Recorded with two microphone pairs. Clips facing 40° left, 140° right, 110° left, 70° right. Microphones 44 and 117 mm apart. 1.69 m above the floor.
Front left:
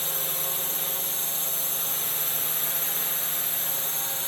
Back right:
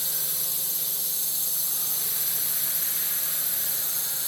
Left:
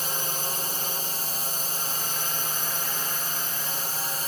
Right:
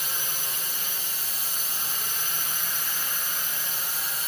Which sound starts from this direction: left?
A drone, at 0.0 s.